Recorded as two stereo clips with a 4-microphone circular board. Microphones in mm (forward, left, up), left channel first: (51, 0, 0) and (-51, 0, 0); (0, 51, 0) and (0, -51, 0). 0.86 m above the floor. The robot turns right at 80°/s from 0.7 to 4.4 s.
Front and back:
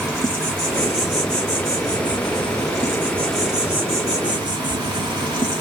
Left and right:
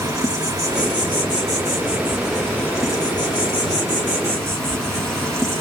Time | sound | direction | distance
0.0 | an insect | 120° right | 1.2 m